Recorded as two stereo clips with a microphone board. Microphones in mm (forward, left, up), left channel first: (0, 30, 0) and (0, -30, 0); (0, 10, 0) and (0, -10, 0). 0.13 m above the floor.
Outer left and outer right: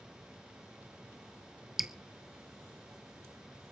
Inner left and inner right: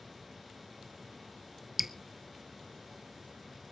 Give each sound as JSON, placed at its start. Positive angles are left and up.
{"t": 1.8, "sound": "dripping", "side_deg": -5, "distance_m": 0.7}